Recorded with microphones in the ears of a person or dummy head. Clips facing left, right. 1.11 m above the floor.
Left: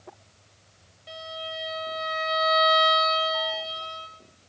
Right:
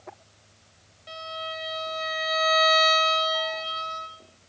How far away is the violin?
About 3 m.